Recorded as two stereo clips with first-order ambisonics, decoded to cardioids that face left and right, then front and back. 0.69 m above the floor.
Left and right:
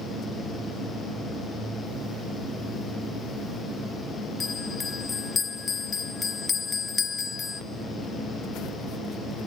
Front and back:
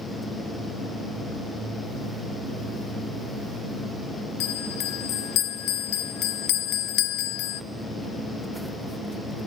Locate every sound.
4.4 s a bell: 20° left, 0.7 m